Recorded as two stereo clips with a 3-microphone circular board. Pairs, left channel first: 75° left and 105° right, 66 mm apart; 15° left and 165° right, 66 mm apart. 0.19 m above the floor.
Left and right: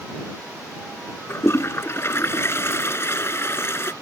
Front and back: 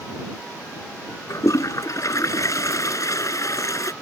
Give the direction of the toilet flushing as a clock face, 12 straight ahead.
11 o'clock.